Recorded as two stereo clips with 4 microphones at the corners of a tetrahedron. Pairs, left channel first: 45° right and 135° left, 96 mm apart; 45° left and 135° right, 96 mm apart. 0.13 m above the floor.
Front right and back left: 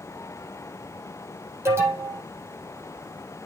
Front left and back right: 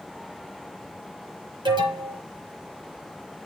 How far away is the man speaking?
I don't hear a man speaking.